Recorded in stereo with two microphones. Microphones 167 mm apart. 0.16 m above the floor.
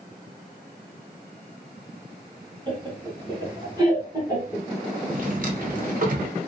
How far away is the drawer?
About 0.9 m.